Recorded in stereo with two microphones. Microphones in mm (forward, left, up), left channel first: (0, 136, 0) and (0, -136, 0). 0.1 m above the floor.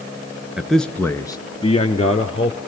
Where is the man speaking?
Centre (ahead or behind), 1.1 m; by 2.6 s 25° left (ahead or behind), 1.7 m.